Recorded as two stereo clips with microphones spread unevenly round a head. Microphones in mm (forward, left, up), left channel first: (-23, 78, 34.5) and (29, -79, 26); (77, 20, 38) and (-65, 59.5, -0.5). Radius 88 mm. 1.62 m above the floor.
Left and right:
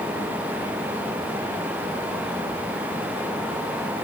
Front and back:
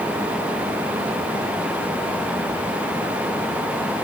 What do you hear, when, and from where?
Only background noise.